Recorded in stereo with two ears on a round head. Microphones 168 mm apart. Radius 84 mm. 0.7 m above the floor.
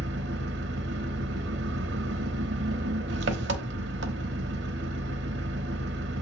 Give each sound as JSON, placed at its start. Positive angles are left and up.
{"t": 0.0, "sound": "an engine running", "side_deg": -65, "distance_m": 1.1}